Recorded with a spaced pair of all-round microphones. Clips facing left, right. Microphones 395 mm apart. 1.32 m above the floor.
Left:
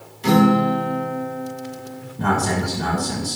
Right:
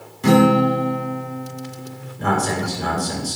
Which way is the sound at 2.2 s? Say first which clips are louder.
Even; 90° left.